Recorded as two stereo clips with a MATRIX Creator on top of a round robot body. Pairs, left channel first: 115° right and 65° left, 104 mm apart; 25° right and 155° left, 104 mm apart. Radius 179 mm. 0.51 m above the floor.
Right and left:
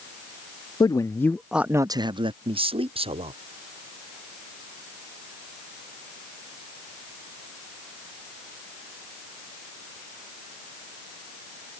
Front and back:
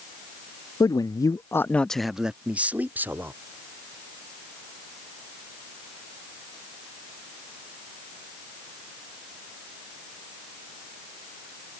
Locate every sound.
0.8 s a man speaking: 70° right; by 3.3 s 85° left